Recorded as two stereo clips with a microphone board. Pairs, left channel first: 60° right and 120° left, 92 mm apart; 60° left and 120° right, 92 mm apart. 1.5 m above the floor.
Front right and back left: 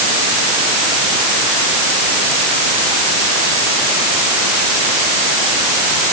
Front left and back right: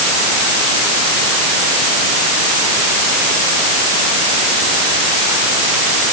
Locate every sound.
Only background noise.